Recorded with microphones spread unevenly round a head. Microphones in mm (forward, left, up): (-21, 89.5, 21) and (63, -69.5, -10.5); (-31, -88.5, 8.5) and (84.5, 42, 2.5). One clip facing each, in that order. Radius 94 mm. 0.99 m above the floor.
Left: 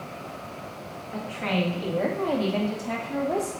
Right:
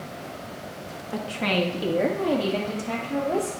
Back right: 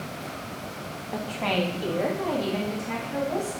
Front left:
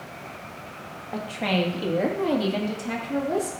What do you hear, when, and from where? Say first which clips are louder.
1.1 s a woman speaking: right 2 dB, front left 1 dB; 45° right, 1.4 m; by 3.5 s 25° left, 3 m